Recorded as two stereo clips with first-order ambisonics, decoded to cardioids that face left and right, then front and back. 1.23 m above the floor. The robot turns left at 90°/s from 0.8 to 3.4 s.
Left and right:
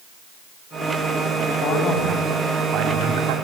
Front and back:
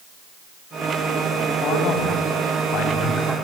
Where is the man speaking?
55° left, 8.5 m; by 3.4 s 100° right, 8.5 m.